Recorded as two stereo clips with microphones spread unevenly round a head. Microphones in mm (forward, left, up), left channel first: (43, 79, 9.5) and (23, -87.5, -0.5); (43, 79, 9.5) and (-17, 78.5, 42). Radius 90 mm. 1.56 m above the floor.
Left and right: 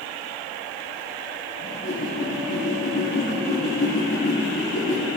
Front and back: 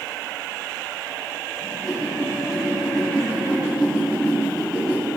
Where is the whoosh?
95° left, 4 m.